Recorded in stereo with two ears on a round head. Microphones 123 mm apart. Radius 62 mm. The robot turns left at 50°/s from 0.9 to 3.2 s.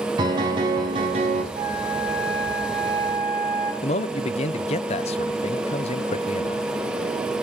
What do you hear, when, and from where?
0.2 s a piano: 35° right (ahead or behind), 3 m; by 1.4 s 55° right (ahead or behind), 3 m
1.5 s a flute: 75° right, 5.5 m; by 3.7 s 160° right, 5.5 m
3.8 s a man speaking: 50° left (ahead or behind), 0.6 m